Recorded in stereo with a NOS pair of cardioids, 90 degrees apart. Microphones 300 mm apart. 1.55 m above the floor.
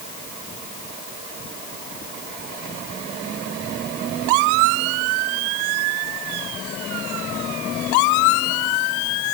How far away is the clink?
I don't hear a clink.